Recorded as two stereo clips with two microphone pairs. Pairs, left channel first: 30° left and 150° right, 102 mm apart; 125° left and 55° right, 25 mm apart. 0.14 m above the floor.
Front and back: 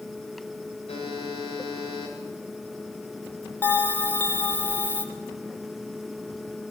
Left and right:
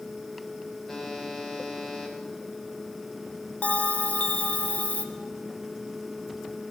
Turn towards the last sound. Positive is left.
turn(degrees=100)